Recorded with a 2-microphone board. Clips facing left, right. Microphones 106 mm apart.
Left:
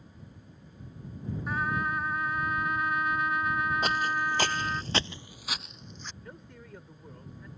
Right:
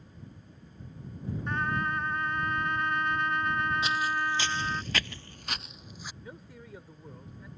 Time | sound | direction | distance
1.5 | a trumpet | 5° left (ahead or behind) | ?
3.8 | footsteps | 50° left (ahead or behind) | ?
6.2 | a man speaking | 5° right (ahead or behind) | ?